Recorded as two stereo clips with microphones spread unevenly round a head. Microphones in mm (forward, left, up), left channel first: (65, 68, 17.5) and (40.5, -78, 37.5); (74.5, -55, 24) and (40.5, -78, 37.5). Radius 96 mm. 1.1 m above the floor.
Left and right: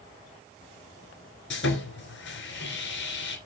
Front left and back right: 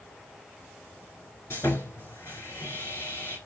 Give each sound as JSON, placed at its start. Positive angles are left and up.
{"t": 1.5, "sound": "sawing", "azimuth_deg": 95, "distance_m": 2.5}